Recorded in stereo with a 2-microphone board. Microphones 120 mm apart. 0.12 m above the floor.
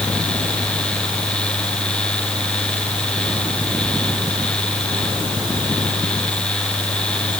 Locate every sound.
Only background noise.